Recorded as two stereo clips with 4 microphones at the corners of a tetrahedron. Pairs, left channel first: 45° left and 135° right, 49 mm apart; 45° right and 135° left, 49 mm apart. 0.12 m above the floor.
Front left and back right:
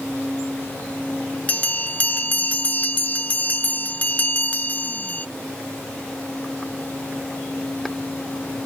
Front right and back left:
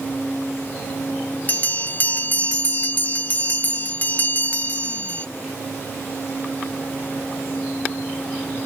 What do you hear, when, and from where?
1.5 s a bell: 5° right, 0.5 m